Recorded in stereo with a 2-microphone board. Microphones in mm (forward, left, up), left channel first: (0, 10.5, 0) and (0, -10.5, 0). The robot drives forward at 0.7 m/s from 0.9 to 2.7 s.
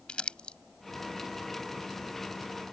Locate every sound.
0.1 s crumpling: 55° left (ahead or behind)